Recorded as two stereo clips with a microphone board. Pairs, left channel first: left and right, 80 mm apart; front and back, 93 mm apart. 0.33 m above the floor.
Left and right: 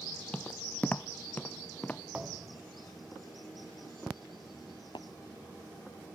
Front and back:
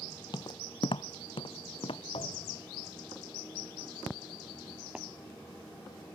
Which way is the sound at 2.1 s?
15° right.